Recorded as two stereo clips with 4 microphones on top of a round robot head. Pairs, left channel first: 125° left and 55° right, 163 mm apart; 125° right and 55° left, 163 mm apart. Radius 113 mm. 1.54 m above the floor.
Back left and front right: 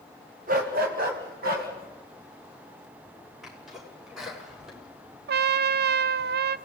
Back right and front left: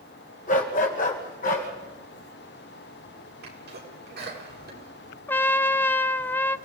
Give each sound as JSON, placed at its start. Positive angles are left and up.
{"t": 0.5, "sound": "a dog barking", "azimuth_deg": -85, "distance_m": 2.0}
{"t": 3.4, "sound": "a sneeze", "azimuth_deg": 35, "distance_m": 7.5}
{"t": 5.3, "sound": "a trumpet", "azimuth_deg": -45, "distance_m": 0.6}